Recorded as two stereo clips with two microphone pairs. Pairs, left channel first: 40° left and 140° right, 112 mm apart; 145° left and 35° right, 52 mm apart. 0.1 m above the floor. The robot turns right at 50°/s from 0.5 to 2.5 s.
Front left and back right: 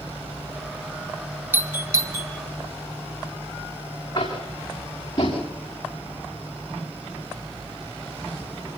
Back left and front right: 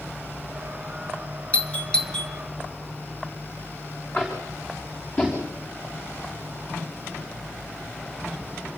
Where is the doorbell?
170° left, 1.8 m; by 2.3 s 150° right, 1.8 m.